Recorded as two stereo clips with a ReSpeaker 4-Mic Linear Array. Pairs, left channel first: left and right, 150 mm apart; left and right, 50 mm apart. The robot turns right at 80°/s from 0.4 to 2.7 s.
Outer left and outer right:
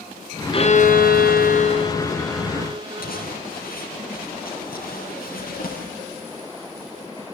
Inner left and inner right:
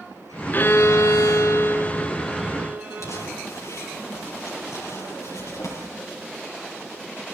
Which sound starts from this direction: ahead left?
A violin, at 0.5 s.